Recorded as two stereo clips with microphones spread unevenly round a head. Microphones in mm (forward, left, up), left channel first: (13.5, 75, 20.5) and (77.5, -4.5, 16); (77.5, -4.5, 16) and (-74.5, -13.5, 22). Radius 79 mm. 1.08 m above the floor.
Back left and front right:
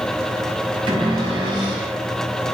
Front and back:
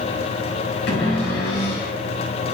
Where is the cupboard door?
10° right, 5 m.